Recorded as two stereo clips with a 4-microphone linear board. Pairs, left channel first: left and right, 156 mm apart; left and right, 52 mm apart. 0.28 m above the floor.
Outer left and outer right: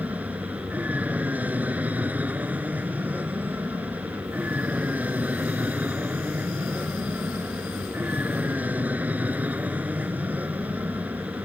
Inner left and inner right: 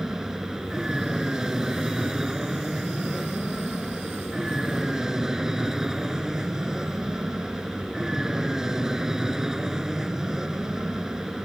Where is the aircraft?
10° right (ahead or behind).